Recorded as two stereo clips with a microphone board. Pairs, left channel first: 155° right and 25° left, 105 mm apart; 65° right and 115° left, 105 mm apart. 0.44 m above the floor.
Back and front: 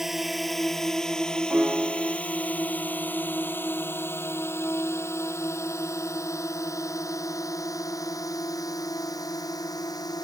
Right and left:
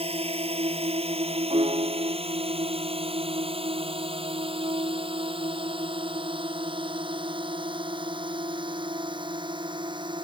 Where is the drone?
110° left; by 10.2 s 150° left.